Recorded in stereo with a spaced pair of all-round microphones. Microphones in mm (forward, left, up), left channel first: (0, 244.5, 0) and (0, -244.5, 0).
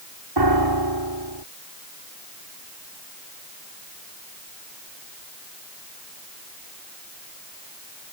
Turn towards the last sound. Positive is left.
turn(degrees=-55)  # may be behind; listen again after turning